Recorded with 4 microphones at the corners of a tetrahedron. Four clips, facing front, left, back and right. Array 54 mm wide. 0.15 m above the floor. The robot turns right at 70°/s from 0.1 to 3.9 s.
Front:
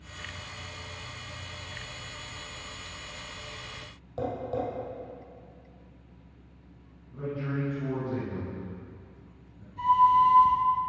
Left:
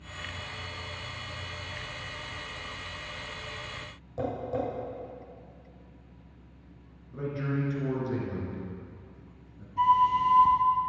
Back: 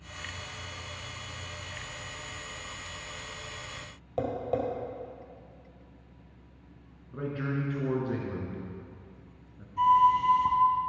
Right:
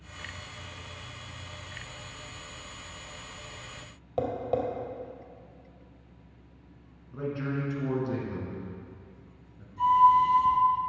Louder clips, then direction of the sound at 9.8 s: Right 3 dB, front 1 dB; 125° left.